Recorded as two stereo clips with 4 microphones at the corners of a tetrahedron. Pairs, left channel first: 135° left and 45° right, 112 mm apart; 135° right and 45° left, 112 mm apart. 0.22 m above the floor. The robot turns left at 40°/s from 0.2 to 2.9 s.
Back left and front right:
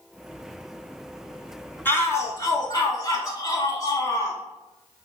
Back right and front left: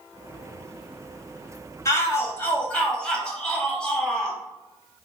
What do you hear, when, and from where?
1.9 s a shout: 170° right, 1.2 m; by 4.4 s 150° left, 1.2 m